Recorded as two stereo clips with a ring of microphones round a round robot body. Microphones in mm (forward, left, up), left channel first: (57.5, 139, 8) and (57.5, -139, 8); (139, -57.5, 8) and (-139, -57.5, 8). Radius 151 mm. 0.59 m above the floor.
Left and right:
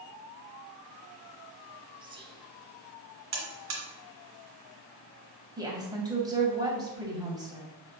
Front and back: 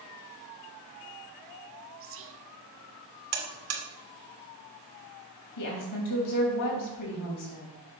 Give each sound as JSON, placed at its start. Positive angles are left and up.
{"t": 2.0, "sound": "whispering", "azimuth_deg": -160, "distance_m": 1.1}
{"t": 3.3, "sound": "a buzzer", "azimuth_deg": -140, "distance_m": 2.0}
{"t": 5.6, "sound": "a woman speaking", "azimuth_deg": -15, "distance_m": 3.0}